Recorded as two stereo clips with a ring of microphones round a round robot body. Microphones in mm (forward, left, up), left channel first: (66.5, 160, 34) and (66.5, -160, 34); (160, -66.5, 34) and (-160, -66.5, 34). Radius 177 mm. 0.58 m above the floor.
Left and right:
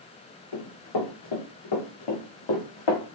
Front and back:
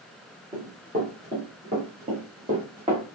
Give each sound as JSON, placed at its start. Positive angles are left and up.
{"t": 0.5, "sound": "running footsteps", "azimuth_deg": 105, "distance_m": 3.0}